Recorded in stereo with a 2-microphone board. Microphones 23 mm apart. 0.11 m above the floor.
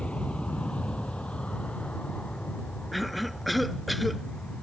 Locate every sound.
0.0 s an aircraft: 60° left (ahead or behind); by 4.6 s 70° left (ahead or behind)
2.9 s a cough: centre (ahead or behind)